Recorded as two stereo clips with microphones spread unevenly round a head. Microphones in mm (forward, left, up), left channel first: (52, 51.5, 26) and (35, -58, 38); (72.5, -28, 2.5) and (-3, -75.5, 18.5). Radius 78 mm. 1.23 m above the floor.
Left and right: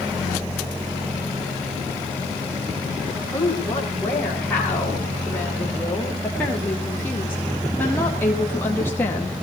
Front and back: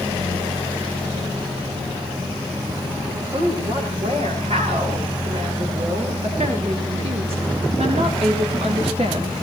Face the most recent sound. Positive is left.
turn(degrees=155)